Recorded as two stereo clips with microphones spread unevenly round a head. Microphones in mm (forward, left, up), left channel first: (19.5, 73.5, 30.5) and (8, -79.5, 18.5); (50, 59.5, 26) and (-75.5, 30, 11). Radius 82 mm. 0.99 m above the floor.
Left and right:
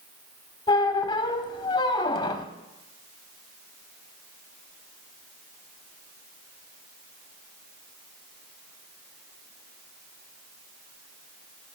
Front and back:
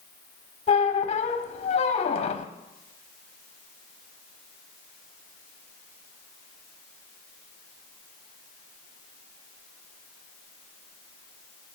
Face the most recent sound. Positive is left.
turn(degrees=30)